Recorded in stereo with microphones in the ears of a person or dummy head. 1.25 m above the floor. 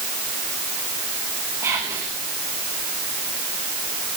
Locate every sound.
1.6 s whispering: 15° right (ahead or behind), 1.2 m